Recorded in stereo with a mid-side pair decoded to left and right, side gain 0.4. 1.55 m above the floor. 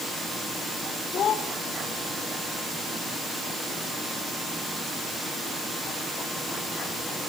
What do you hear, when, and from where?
1.1 s a child speaking: 65° left, 3.5 m